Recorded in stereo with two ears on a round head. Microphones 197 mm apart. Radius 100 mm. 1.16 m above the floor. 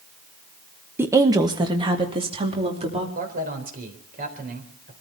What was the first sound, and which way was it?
A woman speaking, 10° right (ahead or behind).